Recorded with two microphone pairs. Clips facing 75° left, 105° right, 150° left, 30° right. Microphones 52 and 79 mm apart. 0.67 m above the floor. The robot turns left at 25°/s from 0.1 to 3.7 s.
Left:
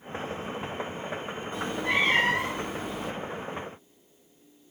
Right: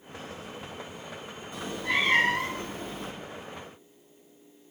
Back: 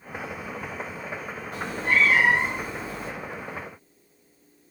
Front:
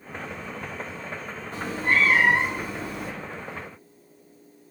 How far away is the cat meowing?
About 1.1 m.